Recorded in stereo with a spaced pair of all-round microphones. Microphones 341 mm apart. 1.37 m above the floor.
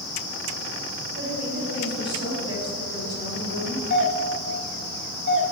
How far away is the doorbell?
About 3 m.